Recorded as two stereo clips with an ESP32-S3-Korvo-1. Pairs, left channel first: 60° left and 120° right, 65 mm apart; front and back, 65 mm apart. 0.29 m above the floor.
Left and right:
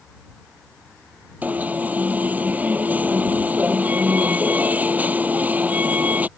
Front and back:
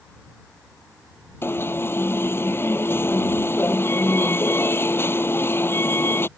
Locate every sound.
1.4 s an alarm: 55° right